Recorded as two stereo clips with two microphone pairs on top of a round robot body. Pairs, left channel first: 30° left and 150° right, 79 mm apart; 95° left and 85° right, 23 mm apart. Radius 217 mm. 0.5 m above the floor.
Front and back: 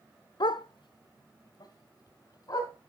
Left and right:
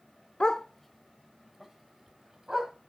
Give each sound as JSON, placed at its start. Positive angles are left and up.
{"t": 0.4, "sound": "a dog barking", "azimuth_deg": 50, "distance_m": 0.7}